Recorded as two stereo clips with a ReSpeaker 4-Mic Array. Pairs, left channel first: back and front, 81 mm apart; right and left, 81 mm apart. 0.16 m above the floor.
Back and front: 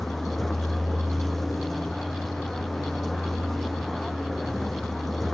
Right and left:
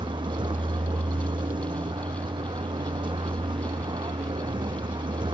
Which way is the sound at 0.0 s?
90° left.